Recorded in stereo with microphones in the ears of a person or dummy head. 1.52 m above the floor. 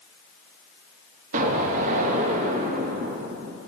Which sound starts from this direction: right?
An explosion, at 1.3 s.